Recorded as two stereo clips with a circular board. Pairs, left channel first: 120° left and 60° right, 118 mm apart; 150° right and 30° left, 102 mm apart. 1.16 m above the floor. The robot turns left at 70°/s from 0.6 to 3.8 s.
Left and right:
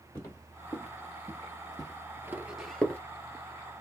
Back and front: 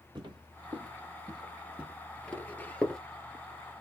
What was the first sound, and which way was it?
Footsteps, 60° left.